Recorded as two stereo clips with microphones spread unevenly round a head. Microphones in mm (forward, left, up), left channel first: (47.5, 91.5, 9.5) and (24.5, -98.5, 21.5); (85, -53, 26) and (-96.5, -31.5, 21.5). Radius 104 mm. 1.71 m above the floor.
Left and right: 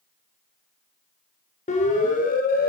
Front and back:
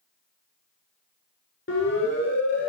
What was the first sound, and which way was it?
A siren, 30° left.